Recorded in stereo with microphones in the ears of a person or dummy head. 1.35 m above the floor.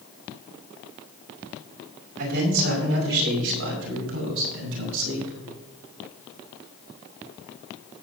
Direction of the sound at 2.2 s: 55° right (ahead or behind).